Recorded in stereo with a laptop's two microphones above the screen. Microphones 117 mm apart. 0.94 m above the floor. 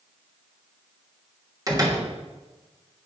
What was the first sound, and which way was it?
A door slam, 30° right (ahead or behind).